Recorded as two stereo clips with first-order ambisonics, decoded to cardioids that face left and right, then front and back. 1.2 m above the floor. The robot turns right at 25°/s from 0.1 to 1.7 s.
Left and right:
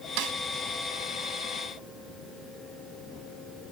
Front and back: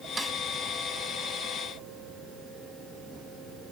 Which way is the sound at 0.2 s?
100° right.